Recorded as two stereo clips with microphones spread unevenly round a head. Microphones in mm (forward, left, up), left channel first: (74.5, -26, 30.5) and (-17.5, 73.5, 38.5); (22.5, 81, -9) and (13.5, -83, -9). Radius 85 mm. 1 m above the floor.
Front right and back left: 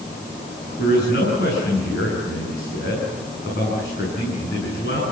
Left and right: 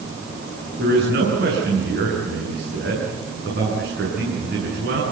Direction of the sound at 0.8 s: 65° right.